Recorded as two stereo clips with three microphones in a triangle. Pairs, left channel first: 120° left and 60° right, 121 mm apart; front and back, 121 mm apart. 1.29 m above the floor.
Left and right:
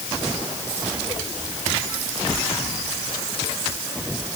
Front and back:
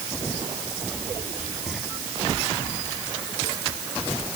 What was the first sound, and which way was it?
Only background noise.